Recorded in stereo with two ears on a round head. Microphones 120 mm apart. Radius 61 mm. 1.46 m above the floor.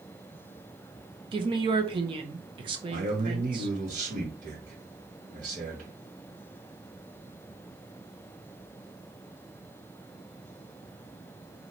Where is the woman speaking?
35° right (ahead or behind), 1.0 m.